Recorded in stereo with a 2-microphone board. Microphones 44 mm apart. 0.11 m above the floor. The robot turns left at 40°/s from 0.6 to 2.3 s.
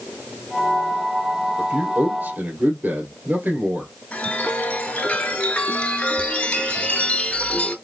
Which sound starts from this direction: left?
A chime, at 4.1 s.